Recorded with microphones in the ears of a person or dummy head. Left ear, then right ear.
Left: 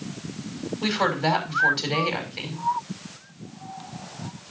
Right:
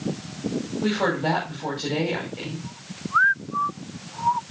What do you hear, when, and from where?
0.8 s a woman speaking: 60° left (ahead or behind), 5.5 m